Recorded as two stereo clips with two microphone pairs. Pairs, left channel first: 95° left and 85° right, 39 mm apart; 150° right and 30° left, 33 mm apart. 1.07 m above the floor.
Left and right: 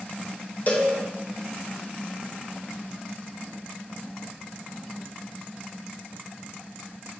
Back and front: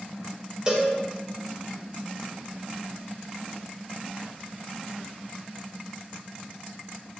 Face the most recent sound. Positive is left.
turn(degrees=90)